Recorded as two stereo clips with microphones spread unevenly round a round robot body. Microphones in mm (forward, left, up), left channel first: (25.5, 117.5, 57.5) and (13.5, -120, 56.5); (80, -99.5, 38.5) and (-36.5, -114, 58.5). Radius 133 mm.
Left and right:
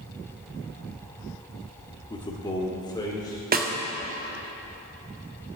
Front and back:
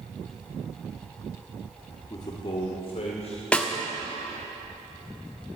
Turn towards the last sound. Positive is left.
turn(degrees=-60)